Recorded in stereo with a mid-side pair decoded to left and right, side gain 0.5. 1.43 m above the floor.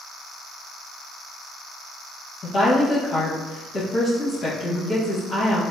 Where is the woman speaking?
40° left, 1.6 m.